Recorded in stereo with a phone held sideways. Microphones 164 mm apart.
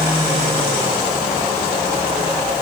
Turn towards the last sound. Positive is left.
No sound to turn to.